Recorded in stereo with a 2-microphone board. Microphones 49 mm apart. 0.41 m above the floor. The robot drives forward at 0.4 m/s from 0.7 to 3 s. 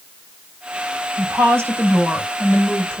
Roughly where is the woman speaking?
Right.